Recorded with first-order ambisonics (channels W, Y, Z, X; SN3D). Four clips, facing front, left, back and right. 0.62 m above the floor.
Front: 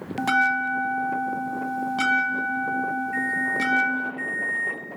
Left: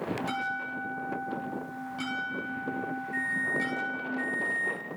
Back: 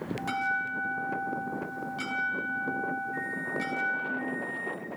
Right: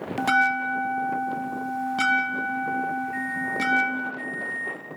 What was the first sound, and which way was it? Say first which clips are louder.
A bell: right 11 dB, front 10 dB; 50° right.